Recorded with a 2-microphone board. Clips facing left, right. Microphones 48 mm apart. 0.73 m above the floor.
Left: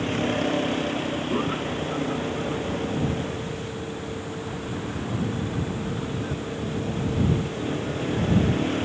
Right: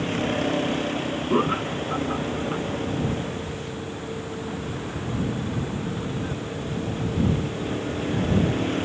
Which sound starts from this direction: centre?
A vehicle, at 0.0 s.